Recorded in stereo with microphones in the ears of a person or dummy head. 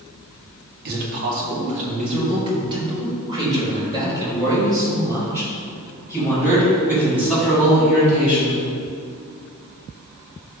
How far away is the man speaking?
About 2 m.